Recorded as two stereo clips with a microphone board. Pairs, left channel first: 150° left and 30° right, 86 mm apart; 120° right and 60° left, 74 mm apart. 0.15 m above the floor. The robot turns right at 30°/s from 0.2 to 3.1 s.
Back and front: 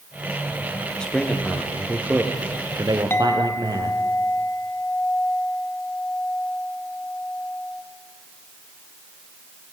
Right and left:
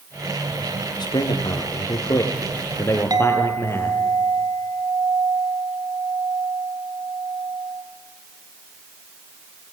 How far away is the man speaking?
About 4.5 m.